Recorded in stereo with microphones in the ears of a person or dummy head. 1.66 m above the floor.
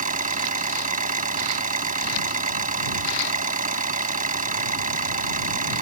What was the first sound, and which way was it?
An engine running, 40° right (ahead or behind).